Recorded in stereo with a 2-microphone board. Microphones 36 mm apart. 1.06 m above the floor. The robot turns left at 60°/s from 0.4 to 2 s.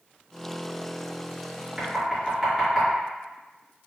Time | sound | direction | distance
1.8 | knocking | 25° right (ahead or behind) | 1.9 m